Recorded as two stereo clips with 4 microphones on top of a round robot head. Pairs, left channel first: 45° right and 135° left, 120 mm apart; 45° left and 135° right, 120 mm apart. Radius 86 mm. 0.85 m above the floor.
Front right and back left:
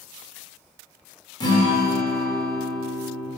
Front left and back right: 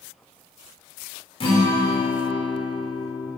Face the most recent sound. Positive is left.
turn(degrees=5)